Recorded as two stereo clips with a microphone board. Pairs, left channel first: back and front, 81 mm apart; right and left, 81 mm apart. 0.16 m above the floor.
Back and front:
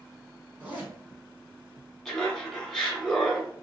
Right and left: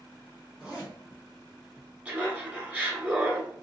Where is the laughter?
105° left, 1.1 m.